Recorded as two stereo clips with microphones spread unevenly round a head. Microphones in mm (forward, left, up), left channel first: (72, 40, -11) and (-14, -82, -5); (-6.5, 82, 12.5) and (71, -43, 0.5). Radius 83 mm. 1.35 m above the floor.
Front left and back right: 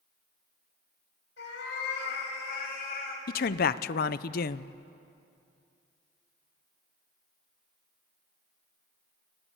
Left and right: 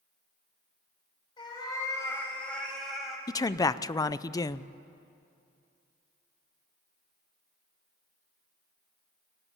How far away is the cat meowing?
About 5 m.